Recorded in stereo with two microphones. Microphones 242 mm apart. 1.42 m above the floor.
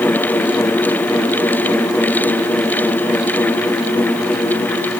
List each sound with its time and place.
Only background noise.